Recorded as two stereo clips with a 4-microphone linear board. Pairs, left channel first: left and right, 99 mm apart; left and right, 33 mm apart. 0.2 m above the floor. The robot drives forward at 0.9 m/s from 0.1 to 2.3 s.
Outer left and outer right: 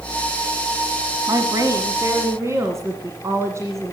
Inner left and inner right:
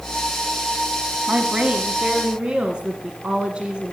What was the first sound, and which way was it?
A woman speaking, 40° right (ahead or behind).